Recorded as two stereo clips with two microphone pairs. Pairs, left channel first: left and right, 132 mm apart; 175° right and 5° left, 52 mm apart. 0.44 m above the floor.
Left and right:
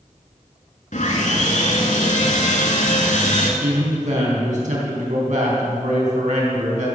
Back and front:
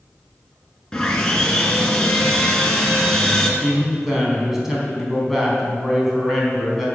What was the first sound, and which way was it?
Sawing, 105° left.